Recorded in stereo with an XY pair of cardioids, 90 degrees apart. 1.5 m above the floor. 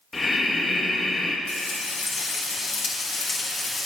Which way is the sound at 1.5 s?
55° left.